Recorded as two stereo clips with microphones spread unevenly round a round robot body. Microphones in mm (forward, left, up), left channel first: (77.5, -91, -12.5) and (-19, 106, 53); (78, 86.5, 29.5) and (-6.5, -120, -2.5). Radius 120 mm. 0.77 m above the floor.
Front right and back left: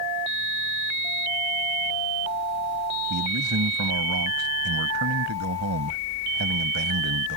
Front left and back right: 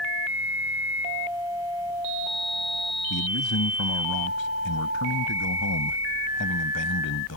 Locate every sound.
3.1 s a man speaking: 100° left